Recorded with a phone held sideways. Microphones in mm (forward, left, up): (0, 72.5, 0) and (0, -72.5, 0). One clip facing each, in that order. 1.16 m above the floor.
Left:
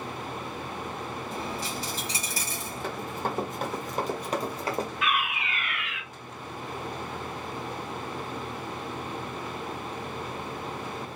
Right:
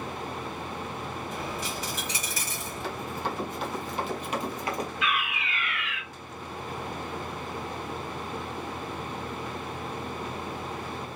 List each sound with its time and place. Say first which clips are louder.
1.3 s a dropped coin: even; 35° left (ahead or behind), 1.4 m
2.8 s running footsteps: left 1 dB; 50° left (ahead or behind), 2.0 m; by 4.9 s 30° left (ahead or behind), 1.3 m
5.0 s a fire alarm: left 1 dB; 55° left (ahead or behind), 2.5 m